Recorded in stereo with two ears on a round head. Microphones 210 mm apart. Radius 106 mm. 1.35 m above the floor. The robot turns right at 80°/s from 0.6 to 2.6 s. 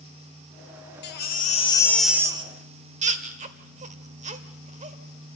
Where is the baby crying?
45° left (ahead or behind), 1.4 m; by 5.0 s 30° right (ahead or behind), 1.4 m.